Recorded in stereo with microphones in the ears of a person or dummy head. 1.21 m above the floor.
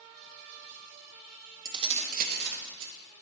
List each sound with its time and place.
1.6 s keys jangling: 20° right (ahead or behind), 0.8 m; by 2.9 s 75° right (ahead or behind), 1.3 m